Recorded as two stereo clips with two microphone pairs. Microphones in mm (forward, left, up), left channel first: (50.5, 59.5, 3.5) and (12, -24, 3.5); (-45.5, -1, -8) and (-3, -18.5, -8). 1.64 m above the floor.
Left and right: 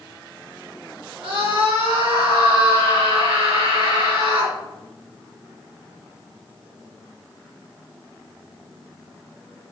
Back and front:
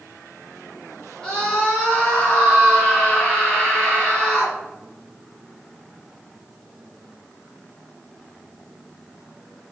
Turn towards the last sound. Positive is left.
turn(degrees=-130)